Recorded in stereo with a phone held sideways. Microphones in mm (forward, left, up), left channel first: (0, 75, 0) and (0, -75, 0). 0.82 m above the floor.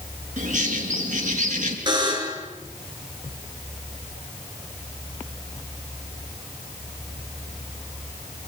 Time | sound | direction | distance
0.4 | a bird | 55° right (ahead or behind) | 5 m
1.9 | a buzzer | 30° right (ahead or behind) | 4.5 m